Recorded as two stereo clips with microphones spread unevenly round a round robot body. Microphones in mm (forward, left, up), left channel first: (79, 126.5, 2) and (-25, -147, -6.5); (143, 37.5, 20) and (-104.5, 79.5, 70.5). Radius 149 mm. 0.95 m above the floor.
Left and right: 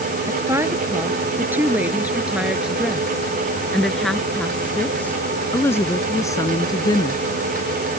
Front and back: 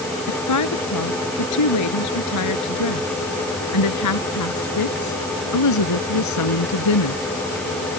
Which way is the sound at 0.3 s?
30° right.